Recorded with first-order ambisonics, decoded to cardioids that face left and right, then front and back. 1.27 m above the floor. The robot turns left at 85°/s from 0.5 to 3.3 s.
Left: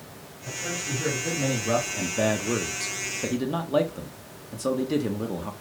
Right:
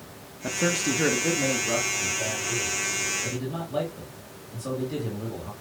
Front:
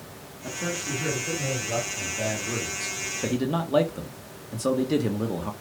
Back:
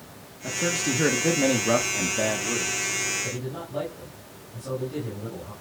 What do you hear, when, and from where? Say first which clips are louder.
0.4 s a man speaking: right 6 dB, back 5 dB; 95° right, 1.9 m; by 5.5 s 30° left, 1.9 m